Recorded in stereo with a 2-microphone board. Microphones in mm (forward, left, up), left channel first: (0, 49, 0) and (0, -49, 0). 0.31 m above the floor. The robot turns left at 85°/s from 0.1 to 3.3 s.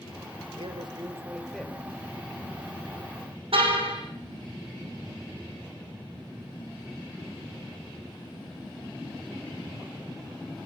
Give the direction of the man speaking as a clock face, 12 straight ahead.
3 o'clock.